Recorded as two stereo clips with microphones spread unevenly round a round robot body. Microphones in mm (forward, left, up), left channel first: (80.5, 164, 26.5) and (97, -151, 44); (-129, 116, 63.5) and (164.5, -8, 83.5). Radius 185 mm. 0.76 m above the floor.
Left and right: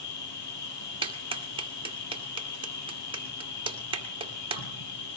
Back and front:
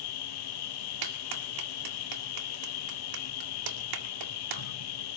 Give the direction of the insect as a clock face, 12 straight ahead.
7 o'clock.